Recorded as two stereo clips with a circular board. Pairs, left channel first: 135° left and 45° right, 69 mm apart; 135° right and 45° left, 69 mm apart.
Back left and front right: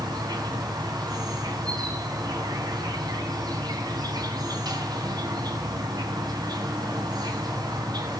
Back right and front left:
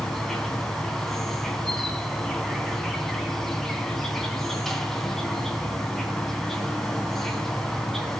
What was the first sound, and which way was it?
An insect, 50° right.